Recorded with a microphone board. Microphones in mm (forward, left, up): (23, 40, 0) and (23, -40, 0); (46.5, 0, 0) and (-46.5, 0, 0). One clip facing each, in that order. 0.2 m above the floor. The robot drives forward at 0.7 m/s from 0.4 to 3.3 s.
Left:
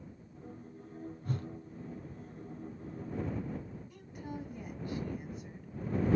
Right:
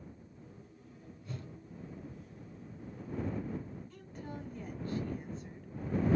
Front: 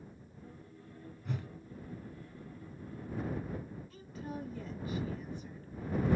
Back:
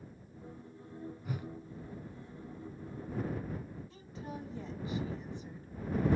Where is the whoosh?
100° left, 0.9 m; by 1.5 s 110° left, 0.9 m.